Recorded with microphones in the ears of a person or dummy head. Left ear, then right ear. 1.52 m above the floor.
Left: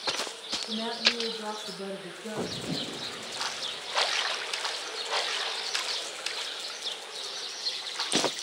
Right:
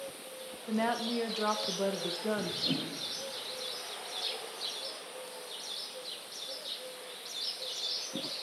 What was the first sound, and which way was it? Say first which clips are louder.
A woman speaking: left 3 dB; 85° right.